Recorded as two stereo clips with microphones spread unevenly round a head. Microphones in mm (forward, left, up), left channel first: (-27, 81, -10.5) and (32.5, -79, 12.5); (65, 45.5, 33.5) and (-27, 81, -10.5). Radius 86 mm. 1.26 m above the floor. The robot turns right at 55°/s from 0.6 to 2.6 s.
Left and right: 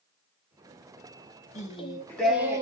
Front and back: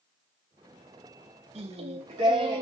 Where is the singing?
160° left, 0.8 m; by 2.6 s 145° right, 0.8 m.